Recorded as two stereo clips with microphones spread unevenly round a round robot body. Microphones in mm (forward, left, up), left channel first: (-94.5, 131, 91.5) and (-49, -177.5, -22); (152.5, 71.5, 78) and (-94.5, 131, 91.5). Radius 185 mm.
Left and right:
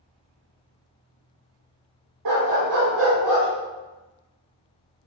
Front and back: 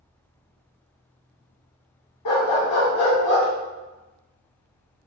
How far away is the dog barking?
About 1.0 m.